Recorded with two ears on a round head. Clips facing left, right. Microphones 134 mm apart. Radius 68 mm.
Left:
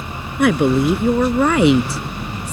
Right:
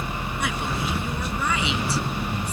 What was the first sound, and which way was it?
A woman speaking, 50° left (ahead or behind).